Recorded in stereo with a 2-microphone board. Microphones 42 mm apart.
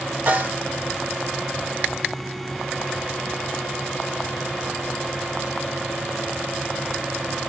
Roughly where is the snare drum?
Right.